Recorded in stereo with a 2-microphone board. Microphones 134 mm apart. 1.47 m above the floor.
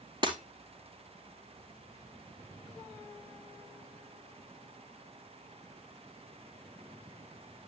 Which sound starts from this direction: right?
Breaking glass, at 0.2 s.